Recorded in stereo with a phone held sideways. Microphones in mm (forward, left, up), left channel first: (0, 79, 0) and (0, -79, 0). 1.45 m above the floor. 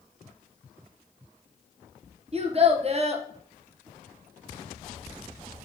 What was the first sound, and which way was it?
A child speaking, 40° right (ahead or behind).